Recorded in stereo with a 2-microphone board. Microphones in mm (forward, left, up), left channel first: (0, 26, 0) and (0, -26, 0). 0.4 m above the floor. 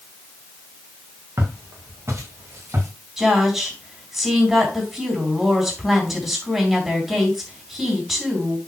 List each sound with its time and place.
1.4 s footsteps: 55° right (ahead or behind), 4 m
3.2 s a woman speaking: 5° right (ahead or behind), 4 m